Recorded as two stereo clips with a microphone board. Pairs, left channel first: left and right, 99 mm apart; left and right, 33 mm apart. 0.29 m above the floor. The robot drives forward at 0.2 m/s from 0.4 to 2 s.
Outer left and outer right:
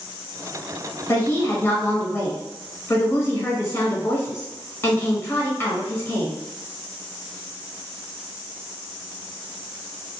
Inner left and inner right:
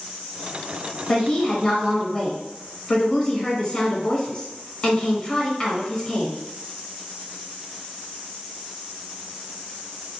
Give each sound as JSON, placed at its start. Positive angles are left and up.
{"t": 1.1, "sound": "a woman speaking", "side_deg": 25, "distance_m": 1.0}